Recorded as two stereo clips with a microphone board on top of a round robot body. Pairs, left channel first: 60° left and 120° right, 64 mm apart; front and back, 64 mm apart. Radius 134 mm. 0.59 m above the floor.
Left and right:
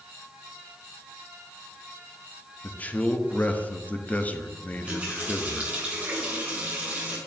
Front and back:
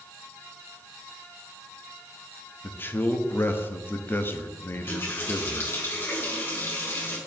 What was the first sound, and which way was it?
A man speaking, 15° left.